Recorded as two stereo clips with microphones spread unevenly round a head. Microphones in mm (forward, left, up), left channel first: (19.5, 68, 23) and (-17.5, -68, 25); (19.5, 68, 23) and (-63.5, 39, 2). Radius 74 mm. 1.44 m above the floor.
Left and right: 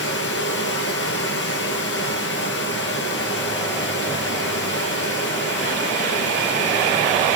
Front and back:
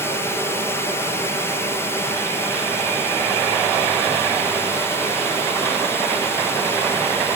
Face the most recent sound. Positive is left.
turn(degrees=75)